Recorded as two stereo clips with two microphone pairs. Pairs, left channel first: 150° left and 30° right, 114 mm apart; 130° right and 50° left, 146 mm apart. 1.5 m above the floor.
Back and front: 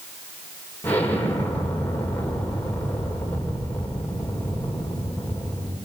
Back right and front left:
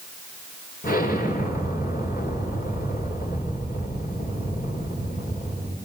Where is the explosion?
135° right, 4.5 m.